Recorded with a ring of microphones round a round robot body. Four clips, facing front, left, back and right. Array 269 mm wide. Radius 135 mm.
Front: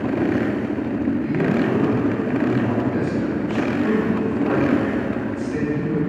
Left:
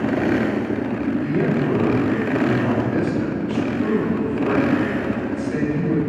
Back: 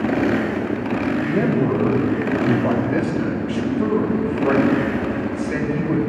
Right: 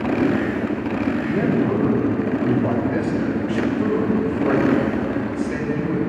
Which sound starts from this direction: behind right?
A man speaking, at 1.2 s.